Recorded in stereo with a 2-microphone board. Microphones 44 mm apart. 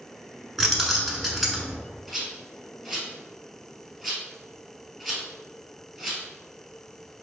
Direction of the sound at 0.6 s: Centre (ahead or behind).